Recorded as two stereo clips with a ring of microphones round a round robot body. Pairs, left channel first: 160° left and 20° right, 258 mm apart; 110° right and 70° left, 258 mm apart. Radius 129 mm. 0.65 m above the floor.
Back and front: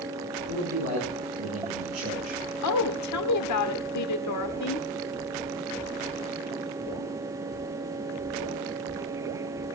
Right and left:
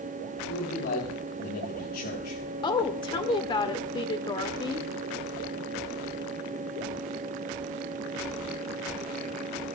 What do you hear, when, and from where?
0.5 s a man speaking: 55° right, 7 m
2.6 s a woman speaking: 175° left, 1.6 m